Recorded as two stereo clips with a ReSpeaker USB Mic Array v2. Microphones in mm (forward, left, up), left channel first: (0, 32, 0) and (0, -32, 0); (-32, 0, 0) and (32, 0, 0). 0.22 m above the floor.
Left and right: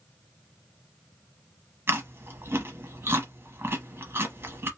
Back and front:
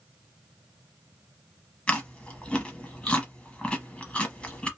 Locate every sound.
1.9 s chewing: 120° right, 0.9 m